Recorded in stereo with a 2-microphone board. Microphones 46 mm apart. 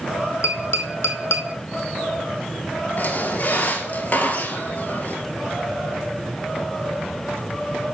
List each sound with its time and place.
0.4 s tapping: 80° left, 1.0 m
3.0 s a squeak: 40° left (ahead or behind), 1.1 m